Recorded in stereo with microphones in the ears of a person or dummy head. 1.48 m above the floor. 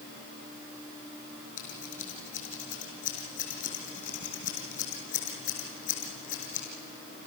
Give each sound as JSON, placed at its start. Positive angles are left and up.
{"t": 1.6, "sound": "scissors", "side_deg": 50, "distance_m": 6.0}